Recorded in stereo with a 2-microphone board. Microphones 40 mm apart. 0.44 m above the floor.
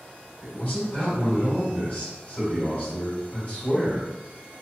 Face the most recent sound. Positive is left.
turn(degrees=35)  # may be behind; listen again after turning